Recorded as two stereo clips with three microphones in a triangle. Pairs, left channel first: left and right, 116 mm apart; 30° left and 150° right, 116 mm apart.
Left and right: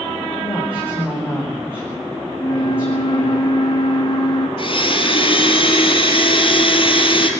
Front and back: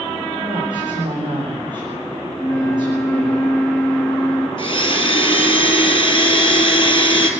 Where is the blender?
65° left, 2.5 m.